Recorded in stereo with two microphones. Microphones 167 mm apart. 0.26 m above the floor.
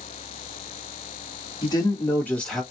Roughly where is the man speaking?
Left.